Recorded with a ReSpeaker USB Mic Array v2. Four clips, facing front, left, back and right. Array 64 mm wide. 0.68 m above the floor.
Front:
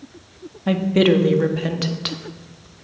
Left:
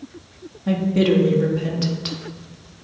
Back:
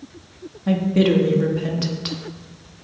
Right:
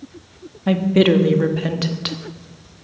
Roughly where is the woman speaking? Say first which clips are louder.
Right 3 dB, front 1 dB; ahead right.